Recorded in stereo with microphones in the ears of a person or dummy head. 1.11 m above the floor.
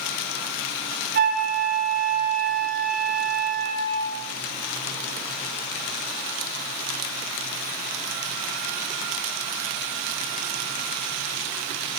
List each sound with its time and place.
1.1 s a flute: 55° right (ahead or behind), 6 m